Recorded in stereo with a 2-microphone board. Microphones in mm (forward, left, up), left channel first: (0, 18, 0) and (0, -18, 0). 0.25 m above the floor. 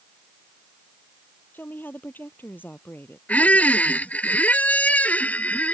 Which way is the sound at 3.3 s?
50° left (ahead or behind).